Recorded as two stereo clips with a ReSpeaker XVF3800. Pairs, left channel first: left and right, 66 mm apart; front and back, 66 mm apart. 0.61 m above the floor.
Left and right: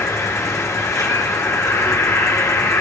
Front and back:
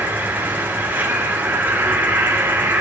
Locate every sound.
0.0 s an insect: 125° left, 3.5 m